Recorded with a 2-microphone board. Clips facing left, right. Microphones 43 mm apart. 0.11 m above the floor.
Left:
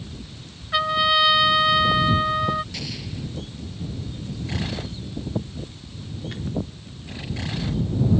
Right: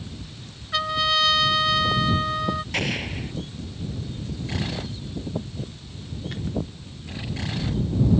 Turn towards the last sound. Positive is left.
turn(degrees=-50)  # may be behind; listen again after turning